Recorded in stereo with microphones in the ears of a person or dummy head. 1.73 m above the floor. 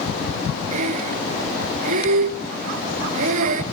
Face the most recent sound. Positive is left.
turn(degrees=-45)  # may be behind; listen again after turning